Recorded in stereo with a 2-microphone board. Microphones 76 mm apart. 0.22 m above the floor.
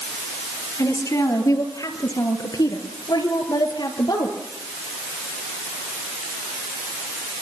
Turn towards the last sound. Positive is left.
turn(degrees=75)  # may be behind; listen again after turning